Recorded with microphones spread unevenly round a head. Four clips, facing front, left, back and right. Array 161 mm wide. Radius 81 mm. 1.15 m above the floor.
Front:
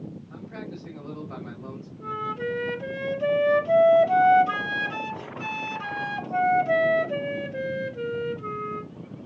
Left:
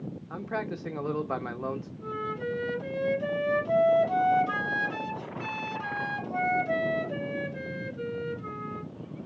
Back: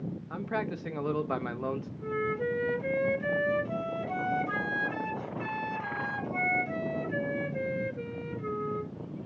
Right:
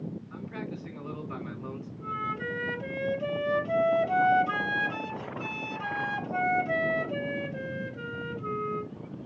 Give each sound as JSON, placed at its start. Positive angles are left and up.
{"t": 0.3, "sound": "a man speaking", "azimuth_deg": 130, "distance_m": 1.4}
{"t": 2.0, "sound": "a flute", "azimuth_deg": -15, "distance_m": 3.5}